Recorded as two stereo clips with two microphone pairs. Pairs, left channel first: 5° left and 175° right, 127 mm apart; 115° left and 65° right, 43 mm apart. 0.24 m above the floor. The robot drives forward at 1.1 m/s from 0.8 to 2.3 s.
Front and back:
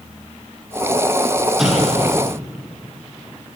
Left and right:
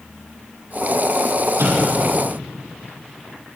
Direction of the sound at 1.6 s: 85° right.